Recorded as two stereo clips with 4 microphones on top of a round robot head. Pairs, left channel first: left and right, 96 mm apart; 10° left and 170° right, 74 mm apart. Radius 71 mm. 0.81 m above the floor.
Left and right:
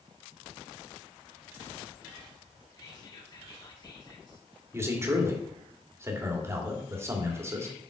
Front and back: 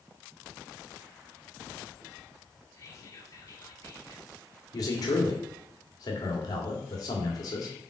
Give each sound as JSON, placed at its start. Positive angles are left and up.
{"t": 2.8, "sound": "whispering", "azimuth_deg": 50, "distance_m": 2.5}
{"t": 4.7, "sound": "a man speaking", "azimuth_deg": -30, "distance_m": 1.9}